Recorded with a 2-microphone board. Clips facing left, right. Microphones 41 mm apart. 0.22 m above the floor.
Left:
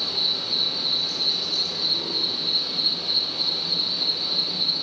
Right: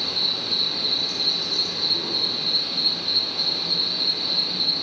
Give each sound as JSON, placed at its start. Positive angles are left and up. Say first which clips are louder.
{"t": 0.0, "sound": "an insect", "louder": "right 1 dB", "side_deg": -50, "distance_m": 1.1}